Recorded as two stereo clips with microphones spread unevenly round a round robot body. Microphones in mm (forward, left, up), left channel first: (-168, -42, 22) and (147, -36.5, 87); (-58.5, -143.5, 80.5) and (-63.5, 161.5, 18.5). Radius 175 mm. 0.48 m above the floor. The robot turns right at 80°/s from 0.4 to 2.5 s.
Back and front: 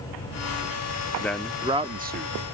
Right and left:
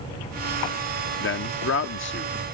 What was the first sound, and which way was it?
A man speaking, 125° right.